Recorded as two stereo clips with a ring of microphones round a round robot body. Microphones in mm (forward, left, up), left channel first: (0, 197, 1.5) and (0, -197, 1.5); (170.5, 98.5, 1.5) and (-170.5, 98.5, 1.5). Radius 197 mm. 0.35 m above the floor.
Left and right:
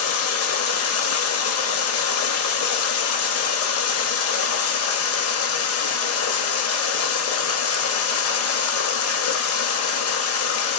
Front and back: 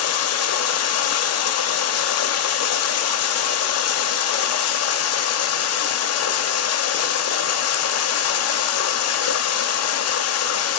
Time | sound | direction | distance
0.0 | running water | 40° left | 0.7 m